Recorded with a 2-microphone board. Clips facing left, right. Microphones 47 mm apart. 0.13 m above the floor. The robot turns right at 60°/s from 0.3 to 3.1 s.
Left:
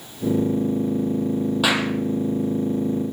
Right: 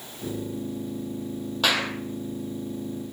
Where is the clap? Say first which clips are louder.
Left 1 dB; 10° left (ahead or behind), 3 m; by 1.9 s 25° left (ahead or behind), 3 m.